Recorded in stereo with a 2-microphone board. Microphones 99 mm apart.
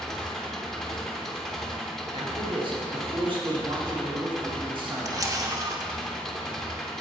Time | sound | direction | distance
0.0 | an engine running | 5° left (ahead or behind) | 0.7 m
2.1 | a man speaking | 55° right (ahead or behind) | 1.6 m
5.0 | a camera shutter | 40° right (ahead or behind) | 0.5 m